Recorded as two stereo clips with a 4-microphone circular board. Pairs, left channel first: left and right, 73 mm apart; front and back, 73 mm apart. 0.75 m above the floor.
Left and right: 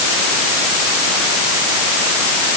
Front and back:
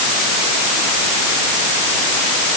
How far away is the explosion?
No explosion in this recording.